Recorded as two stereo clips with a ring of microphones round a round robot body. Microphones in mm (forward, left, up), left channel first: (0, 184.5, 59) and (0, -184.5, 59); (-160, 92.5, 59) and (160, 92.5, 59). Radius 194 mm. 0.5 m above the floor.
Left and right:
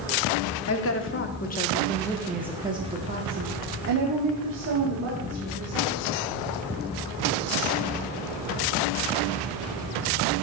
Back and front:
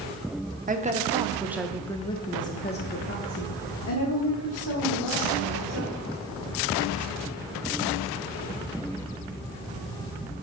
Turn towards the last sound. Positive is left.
turn(degrees=-140)